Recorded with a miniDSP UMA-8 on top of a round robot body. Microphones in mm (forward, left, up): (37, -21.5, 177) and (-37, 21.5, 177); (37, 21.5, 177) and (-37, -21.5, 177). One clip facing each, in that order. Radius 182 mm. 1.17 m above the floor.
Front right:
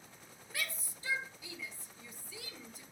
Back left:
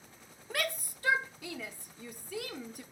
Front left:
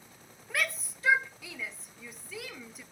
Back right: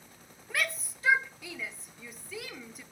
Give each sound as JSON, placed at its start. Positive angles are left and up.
{"t": 0.5, "sound": "a shout", "azimuth_deg": 120, "distance_m": 0.8}